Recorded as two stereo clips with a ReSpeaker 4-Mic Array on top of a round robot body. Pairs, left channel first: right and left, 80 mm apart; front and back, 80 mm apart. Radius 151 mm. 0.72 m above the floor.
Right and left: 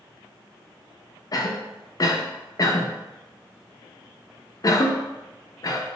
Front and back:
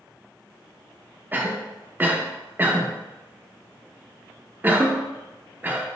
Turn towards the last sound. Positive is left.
turn(degrees=-120)